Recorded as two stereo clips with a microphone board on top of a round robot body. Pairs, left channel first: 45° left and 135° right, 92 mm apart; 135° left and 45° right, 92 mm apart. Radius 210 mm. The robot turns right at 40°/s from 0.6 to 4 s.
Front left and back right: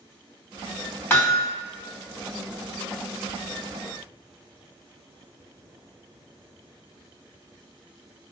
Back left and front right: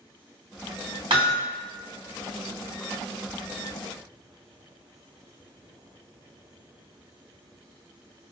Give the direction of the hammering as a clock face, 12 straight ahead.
1 o'clock.